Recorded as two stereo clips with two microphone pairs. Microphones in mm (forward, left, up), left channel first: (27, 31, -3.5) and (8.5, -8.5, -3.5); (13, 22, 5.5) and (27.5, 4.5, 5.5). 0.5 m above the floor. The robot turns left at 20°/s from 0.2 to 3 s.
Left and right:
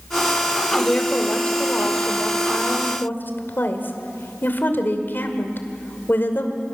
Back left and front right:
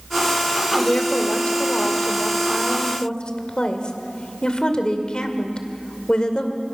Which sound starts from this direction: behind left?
A woman speaking, at 0.8 s.